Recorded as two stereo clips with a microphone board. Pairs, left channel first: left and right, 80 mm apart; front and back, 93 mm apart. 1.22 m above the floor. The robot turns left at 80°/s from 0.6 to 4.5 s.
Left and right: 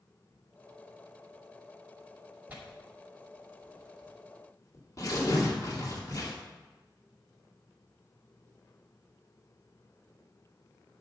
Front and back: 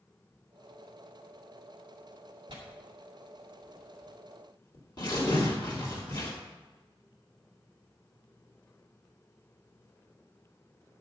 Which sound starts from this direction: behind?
Tearing paper, at 2.5 s.